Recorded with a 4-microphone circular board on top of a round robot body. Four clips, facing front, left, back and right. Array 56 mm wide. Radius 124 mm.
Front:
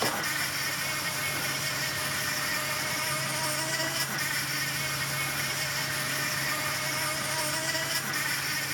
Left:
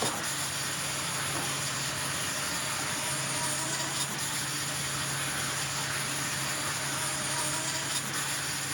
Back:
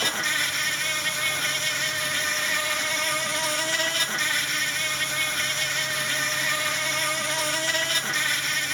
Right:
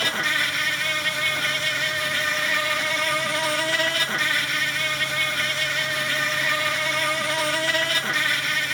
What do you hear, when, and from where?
0.0 s an insect: 105° right